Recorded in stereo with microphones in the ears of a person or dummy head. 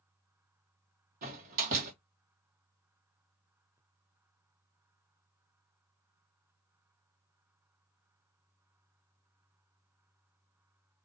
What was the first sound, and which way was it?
A door slam, 40° right (ahead or behind).